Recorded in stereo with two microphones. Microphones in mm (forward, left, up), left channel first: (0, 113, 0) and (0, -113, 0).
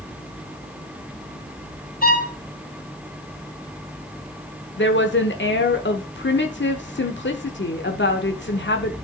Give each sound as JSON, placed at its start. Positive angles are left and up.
{"t": 2.0, "sound": "a violin", "side_deg": 40, "distance_m": 1.3}
{"t": 4.8, "sound": "a woman speaking", "side_deg": 55, "distance_m": 1.0}